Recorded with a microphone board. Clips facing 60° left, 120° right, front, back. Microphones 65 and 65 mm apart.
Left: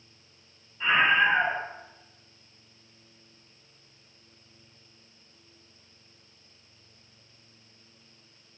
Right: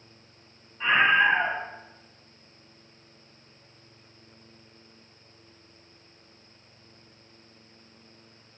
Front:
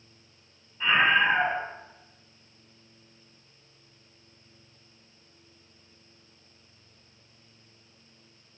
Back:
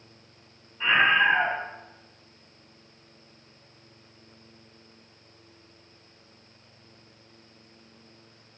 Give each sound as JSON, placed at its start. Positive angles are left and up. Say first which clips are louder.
{"t": 0.8, "sound": "a scream", "louder": "right 1 dB, back 1 dB", "azimuth_deg": -110, "distance_m": 1.0}